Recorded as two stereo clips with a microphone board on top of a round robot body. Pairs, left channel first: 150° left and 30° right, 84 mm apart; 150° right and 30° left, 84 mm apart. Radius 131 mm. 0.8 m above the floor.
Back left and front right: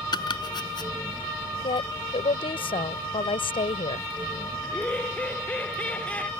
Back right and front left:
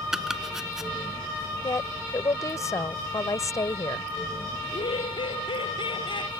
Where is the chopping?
115° left.